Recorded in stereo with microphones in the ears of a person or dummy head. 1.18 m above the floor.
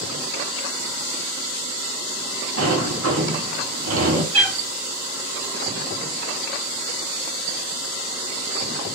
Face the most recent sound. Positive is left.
turn(degrees=-65)  # may be behind; listen again after turning